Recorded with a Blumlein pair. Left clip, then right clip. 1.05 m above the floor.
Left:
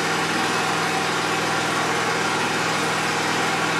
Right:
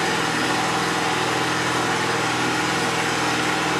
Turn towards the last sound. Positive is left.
turn(degrees=15)